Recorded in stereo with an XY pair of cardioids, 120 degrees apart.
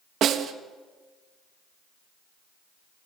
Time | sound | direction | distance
0.2 | a snare drum | 60° right | 1.6 m